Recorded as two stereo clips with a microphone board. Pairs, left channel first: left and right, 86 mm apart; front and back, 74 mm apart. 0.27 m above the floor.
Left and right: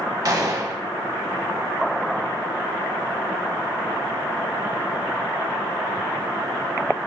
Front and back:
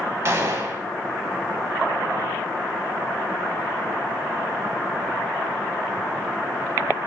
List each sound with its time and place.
0.2 s a gunshot: 130° right, 0.5 m